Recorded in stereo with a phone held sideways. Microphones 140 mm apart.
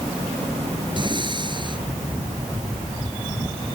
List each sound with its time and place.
1.0 s breathing: 35° right (ahead or behind)